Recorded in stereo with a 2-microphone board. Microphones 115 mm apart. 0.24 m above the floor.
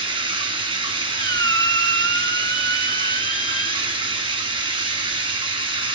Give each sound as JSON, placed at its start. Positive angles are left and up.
{"t": 0.0, "sound": "running water", "side_deg": -50, "distance_m": 1.2}
{"t": 1.2, "sound": "a squeak", "side_deg": 35, "distance_m": 0.5}